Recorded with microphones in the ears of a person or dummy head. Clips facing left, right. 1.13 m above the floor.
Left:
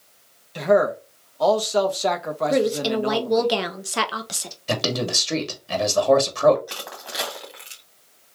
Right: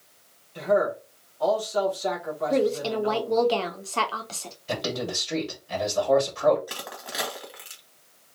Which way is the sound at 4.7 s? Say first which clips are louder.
Left 4 dB; 85° left.